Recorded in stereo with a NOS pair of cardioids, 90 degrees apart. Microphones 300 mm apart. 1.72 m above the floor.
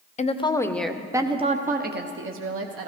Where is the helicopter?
No helicopter in this recording.